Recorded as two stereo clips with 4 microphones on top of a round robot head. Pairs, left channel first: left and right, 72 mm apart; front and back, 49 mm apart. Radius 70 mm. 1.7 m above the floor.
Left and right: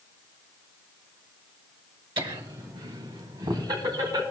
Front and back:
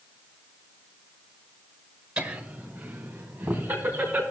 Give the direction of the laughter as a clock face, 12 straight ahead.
4 o'clock.